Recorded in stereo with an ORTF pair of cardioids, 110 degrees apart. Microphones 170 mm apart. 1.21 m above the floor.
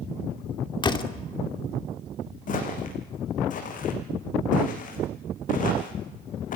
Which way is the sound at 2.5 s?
55° left.